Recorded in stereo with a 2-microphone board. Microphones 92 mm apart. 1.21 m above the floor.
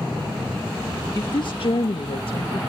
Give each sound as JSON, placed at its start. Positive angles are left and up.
{"t": 1.1, "sound": "a woman speaking", "side_deg": 45, "distance_m": 1.1}